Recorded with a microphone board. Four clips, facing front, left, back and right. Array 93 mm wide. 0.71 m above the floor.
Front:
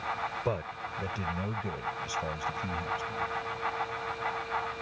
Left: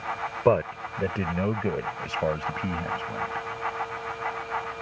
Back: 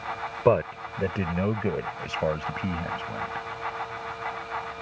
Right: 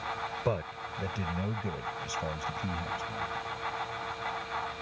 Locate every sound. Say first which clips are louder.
0.5 s a man speaking: left 13 dB, back 11 dB; 135° left